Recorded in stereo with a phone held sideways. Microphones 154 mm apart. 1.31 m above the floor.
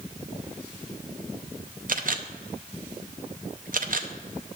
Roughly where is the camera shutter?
Right.